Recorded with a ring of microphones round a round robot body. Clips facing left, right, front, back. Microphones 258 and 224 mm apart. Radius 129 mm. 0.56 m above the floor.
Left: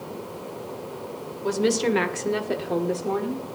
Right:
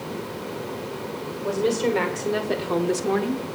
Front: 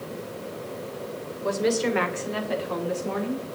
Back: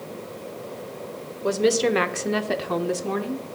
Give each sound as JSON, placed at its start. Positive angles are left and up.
{"t": 1.4, "sound": "a woman speaking", "azimuth_deg": 130, "distance_m": 2.0}